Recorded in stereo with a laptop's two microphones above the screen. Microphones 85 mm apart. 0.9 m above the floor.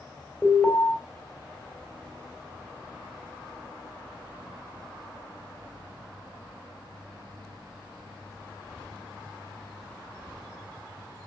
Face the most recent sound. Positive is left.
turn(degrees=10)  # may be behind; listen again after turning